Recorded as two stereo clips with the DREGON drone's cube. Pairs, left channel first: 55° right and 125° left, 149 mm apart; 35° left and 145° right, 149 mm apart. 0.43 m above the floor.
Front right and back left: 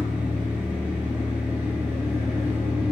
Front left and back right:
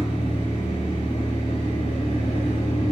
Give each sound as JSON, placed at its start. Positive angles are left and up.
{"t": 0.0, "sound": "an engine running", "azimuth_deg": 50, "distance_m": 1.1}